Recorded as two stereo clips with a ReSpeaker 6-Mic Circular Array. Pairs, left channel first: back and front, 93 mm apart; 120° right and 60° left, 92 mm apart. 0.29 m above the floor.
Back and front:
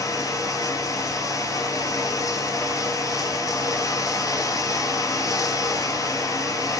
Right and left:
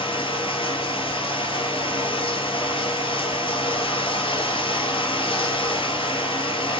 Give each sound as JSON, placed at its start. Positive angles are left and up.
{"t": 0.0, "sound": "running water", "azimuth_deg": -130, "distance_m": 0.8}